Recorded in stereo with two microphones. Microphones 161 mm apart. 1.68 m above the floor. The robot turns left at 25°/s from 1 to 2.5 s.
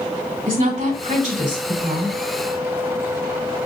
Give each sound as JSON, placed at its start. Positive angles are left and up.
{"t": 0.5, "sound": "a woman speaking", "side_deg": -60, "distance_m": 3.0}